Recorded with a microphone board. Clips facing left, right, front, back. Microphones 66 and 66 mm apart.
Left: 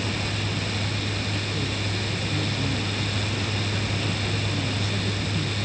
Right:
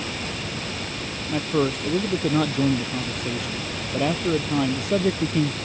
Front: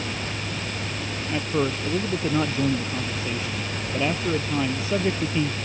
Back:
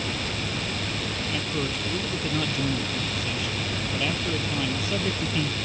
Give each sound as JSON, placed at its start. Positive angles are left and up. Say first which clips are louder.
{"t": 1.3, "sound": "a man speaking", "louder": "right 7 dB, front 8 dB", "azimuth_deg": -60}